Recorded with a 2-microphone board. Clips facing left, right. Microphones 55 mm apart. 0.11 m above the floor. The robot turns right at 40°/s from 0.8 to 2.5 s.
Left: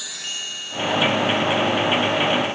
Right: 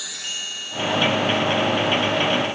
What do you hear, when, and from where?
Only background noise.